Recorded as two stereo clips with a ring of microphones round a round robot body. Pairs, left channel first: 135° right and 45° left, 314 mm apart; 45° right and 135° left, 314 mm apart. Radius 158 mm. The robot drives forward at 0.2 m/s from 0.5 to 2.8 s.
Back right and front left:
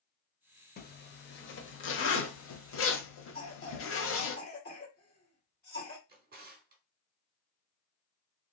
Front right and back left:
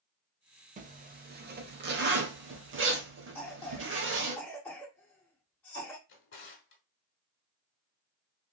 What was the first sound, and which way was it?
A zipper, 175° right.